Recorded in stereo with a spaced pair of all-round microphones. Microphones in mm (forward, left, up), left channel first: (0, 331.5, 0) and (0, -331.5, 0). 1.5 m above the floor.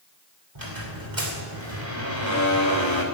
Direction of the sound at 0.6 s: 40° right (ahead or behind).